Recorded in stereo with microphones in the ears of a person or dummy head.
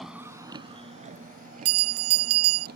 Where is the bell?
70° right (ahead or behind).